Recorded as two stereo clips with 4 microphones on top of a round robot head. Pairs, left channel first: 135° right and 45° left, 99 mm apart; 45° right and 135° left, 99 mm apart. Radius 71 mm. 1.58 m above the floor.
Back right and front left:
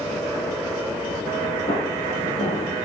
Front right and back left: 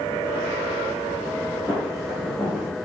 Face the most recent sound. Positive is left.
turn(degrees=-140)